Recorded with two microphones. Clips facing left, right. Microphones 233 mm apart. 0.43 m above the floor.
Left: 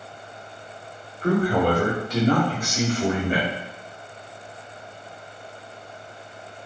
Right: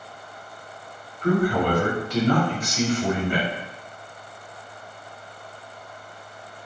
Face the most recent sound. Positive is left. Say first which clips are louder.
# left 1 dB
turn(degrees=25)  # may be behind; listen again after turning